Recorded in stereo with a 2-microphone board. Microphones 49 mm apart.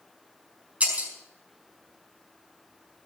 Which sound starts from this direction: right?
Breaking glass, at 0.8 s.